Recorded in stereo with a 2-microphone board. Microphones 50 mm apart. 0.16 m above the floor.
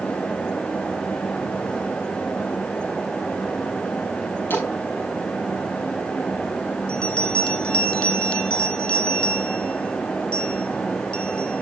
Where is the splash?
45° left (ahead or behind), 8 m.